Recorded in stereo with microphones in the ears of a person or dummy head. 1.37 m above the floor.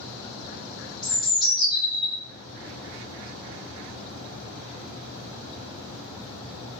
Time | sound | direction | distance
1.0 | a bird | centre (ahead or behind) | 1.4 m